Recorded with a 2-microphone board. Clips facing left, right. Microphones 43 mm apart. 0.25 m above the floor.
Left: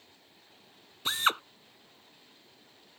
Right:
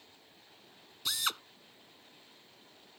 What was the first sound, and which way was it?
A drill, 35° left (ahead or behind).